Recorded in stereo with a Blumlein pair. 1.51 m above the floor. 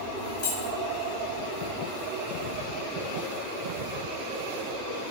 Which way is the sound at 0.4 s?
40° left.